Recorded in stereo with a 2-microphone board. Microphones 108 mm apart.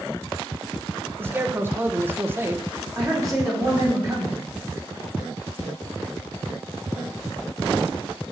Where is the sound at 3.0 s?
35° right (ahead or behind), 4 m.